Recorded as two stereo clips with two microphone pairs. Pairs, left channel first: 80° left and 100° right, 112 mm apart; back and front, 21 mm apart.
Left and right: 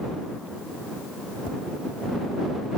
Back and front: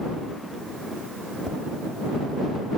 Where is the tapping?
50° left.